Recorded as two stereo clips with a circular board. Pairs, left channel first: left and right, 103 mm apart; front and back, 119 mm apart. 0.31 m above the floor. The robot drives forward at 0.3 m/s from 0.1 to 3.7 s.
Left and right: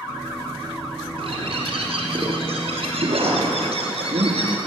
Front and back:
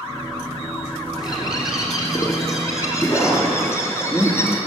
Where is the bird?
55° right, 3.5 m; by 4.6 s 65° right, 3 m.